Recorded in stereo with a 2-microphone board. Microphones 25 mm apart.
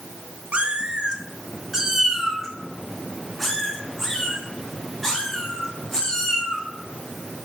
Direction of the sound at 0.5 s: 55° right (ahead or behind).